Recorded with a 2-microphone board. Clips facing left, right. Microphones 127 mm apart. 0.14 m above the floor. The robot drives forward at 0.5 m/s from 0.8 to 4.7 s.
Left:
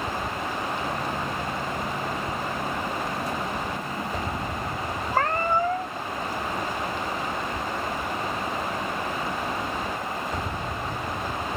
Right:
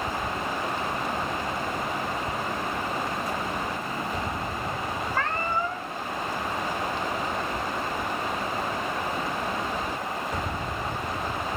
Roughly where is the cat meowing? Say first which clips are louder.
Left 6 dB; left.